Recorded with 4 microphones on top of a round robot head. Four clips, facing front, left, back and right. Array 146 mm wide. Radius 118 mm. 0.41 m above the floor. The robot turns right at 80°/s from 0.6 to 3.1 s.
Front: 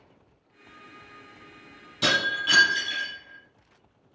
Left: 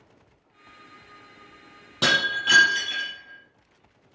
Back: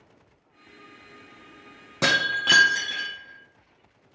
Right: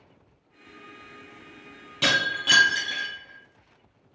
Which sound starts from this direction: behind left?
Breaking glass, at 2.0 s.